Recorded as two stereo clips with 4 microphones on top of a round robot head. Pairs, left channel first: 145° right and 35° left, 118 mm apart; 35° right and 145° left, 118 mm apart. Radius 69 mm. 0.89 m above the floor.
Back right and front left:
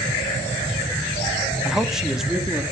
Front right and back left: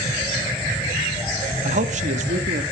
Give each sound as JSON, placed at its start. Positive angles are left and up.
{"t": 1.6, "sound": "a man speaking", "azimuth_deg": 120, "distance_m": 1.2}